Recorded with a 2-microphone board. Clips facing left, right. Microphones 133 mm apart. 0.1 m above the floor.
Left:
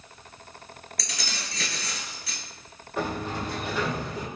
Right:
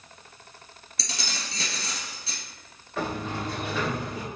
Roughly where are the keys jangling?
Right.